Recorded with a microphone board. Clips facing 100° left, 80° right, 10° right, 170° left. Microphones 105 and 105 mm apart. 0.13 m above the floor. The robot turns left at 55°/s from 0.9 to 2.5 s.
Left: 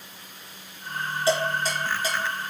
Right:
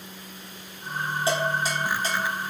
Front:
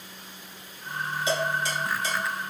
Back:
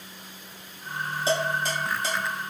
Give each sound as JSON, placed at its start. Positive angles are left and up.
{"t": 1.3, "sound": "dishes clattering", "azimuth_deg": -140, "distance_m": 1.9}